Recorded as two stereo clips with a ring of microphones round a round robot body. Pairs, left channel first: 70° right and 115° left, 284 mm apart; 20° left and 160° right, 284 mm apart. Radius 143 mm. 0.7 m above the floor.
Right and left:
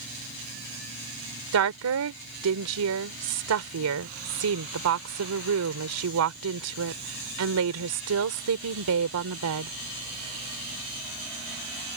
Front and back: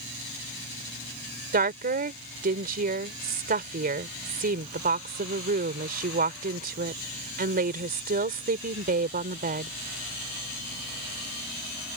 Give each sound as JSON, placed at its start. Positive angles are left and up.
{"t": 1.5, "sound": "a woman speaking", "azimuth_deg": 145}